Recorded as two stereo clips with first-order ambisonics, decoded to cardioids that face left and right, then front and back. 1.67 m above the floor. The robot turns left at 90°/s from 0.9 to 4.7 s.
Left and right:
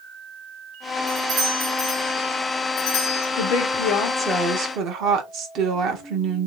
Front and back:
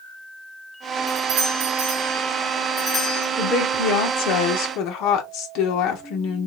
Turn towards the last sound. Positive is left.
turn(degrees=-40)